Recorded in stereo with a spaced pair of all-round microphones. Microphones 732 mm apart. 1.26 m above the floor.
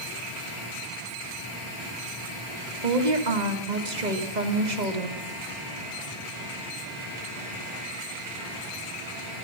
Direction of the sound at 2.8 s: 70° right (ahead or behind).